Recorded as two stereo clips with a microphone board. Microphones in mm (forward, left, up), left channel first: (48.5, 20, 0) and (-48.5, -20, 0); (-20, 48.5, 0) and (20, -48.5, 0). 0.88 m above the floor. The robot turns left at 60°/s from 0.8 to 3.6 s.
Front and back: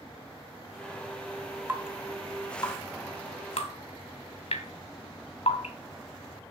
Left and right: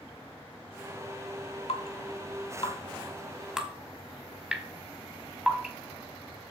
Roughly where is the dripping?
Behind left.